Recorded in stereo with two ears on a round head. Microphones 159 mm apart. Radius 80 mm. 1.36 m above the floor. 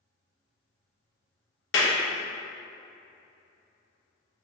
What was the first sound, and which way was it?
A clap, 75° left (ahead or behind).